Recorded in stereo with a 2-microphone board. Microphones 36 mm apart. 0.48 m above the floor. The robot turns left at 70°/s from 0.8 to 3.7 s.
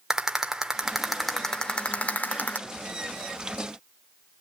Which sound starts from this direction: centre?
A rattle, at 0.1 s.